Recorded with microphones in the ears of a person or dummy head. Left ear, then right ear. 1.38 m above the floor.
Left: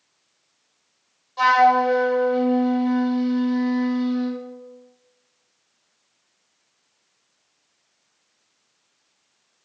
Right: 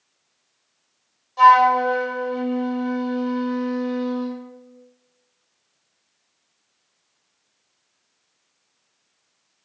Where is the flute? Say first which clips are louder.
Right 3 dB; 5° right (ahead or behind), 0.9 m.